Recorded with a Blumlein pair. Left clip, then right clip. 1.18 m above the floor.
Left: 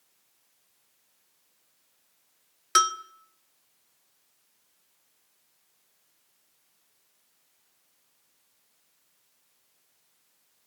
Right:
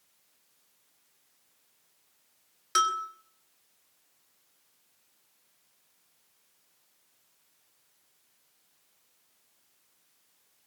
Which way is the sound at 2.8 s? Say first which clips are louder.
Left 3 dB; 20° left.